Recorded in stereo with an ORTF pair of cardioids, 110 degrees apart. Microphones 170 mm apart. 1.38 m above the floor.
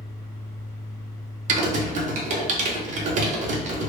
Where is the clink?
No clink in this recording.